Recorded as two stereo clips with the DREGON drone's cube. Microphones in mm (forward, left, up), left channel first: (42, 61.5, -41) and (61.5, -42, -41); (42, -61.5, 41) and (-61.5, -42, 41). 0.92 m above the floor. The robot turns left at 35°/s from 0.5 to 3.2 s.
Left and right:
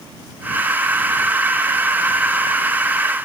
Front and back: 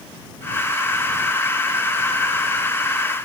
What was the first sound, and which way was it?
Only background noise.